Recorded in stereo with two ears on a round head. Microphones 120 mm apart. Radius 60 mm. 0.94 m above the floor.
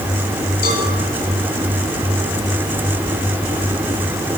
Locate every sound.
0.6 s a cowbell: 70° left (ahead or behind), 7 m